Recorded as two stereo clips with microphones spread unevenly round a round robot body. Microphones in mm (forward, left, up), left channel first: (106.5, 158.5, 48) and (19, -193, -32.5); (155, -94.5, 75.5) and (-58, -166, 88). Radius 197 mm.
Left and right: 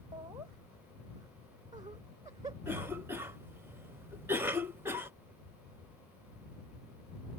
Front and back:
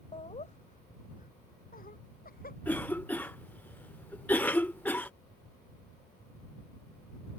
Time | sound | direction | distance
0.1 | laughter | 35° right | ?
2.6 | a cough | 50° right | ?